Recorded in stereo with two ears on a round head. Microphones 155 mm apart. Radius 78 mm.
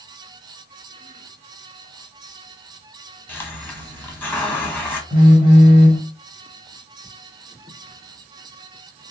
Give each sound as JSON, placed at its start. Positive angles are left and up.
{"t": 3.3, "sound": "a hiss", "side_deg": 10, "distance_m": 1.0}
{"t": 5.1, "sound": "a phone buzzing", "side_deg": -30, "distance_m": 2.5}